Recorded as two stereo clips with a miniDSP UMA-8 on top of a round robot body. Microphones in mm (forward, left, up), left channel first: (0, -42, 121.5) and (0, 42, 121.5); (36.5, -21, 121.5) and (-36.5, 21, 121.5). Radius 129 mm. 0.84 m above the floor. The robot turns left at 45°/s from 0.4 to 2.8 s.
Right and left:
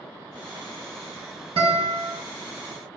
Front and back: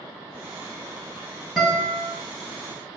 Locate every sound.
1.6 s a guitar: 60° left, 2.5 m; by 2.1 s 40° left, 2.5 m